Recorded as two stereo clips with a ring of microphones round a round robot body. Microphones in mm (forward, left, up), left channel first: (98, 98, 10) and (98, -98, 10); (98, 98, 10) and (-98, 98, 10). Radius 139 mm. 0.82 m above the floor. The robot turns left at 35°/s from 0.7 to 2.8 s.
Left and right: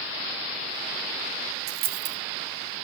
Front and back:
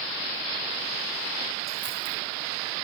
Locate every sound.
1.7 s a dropped coin: 90° right, 1.8 m; by 2.2 s 110° right, 1.8 m